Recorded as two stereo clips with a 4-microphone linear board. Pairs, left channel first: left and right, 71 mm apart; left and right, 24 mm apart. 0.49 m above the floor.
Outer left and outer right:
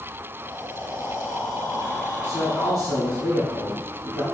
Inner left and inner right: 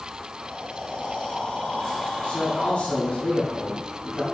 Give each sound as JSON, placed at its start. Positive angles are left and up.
{"t": 0.4, "sound": "breathing", "side_deg": 60, "distance_m": 3.0}
{"t": 2.2, "sound": "a man speaking", "side_deg": 55, "distance_m": 3.5}